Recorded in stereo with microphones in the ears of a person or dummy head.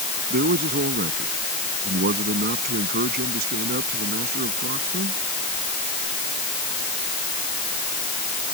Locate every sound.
0.3 s a man speaking: 55° right (ahead or behind)